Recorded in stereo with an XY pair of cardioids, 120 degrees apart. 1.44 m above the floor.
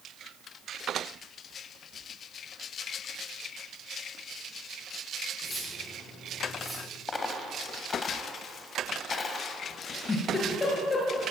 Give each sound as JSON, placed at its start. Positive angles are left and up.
{"t": 5.4, "sound": "cutlery clinking", "azimuth_deg": 0, "distance_m": 9.5}
{"t": 7.1, "sound": "a dropped coin", "azimuth_deg": 30, "distance_m": 3.0}
{"t": 9.8, "sound": "a giggle", "azimuth_deg": 25, "distance_m": 6.0}